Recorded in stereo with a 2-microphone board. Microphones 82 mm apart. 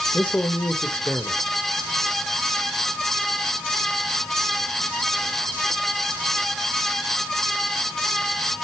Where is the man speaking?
20° left (ahead or behind), 1.3 m.